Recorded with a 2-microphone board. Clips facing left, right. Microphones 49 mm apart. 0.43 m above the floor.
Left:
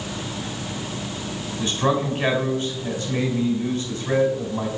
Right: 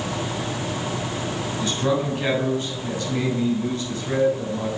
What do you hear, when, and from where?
1.6 s a man speaking: 30° left (ahead or behind), 3.5 m